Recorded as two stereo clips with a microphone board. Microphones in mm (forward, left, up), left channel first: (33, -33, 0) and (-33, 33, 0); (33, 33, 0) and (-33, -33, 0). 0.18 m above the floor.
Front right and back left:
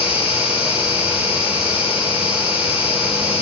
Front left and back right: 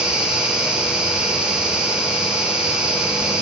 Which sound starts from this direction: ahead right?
An insect, at 0.0 s.